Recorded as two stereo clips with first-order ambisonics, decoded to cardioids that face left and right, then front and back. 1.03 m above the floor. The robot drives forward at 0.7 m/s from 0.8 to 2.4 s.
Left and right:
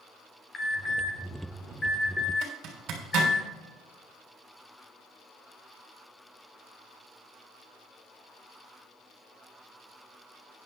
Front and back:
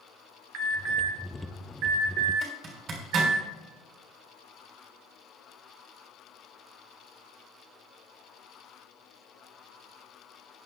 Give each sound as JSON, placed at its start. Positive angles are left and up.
{"t": 0.5, "sound": "an alarm", "azimuth_deg": 155, "distance_m": 1.7}
{"t": 2.4, "sound": "a zipper", "azimuth_deg": -130, "distance_m": 3.5}